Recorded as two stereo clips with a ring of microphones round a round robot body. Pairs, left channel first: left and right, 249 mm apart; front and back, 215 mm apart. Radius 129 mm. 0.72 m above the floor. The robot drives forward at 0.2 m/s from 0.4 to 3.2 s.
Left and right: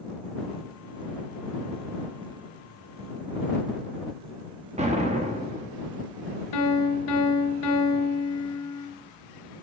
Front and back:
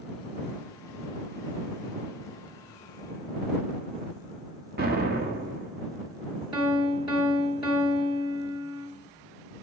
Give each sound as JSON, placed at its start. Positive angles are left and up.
{"t": 4.8, "sound": "an explosion", "azimuth_deg": -145, "distance_m": 1.2}
{"t": 6.5, "sound": "a piano", "azimuth_deg": 110, "distance_m": 2.5}